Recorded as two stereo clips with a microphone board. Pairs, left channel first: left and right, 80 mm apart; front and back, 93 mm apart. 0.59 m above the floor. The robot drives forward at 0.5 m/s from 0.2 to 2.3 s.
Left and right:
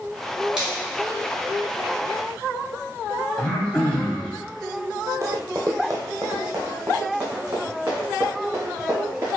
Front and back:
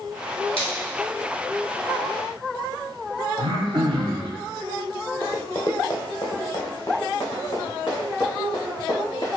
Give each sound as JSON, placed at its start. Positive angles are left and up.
{"t": 0.6, "sound": "a finger snap", "azimuth_deg": -10, "distance_m": 1.6}
{"t": 3.4, "sound": "throat clearing", "azimuth_deg": 170, "distance_m": 0.9}
{"t": 5.2, "sound": "running footsteps", "azimuth_deg": -55, "distance_m": 0.9}